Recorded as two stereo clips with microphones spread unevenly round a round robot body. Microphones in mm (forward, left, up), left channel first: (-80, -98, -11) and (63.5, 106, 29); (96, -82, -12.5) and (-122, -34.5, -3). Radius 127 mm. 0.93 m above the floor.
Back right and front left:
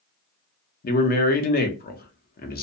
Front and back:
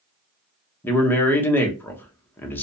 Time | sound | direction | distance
0.8 | a man speaking | 90° right | 0.7 m